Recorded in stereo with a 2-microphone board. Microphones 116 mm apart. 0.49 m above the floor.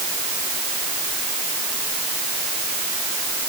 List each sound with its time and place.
Only background noise.